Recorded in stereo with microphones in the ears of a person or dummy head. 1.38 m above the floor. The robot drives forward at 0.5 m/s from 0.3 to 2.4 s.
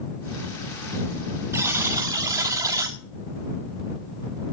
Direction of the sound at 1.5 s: 15° right (ahead or behind).